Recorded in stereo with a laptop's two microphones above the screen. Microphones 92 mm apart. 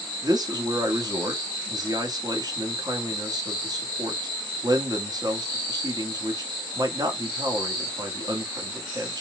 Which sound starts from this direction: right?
A man speaking, at 0.2 s.